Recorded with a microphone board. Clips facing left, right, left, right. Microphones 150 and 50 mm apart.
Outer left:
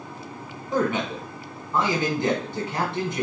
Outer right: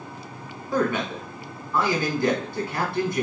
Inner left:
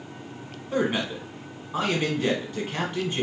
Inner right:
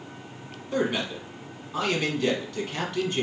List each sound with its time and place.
0.7 s a man speaking: 20° left (ahead or behind), 1.1 m